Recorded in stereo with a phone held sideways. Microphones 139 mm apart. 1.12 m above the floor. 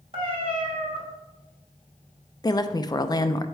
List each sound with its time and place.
0.1 s a cat meowing: 45° right (ahead or behind), 2.5 m
2.4 s a woman speaking: 30° left (ahead or behind), 0.5 m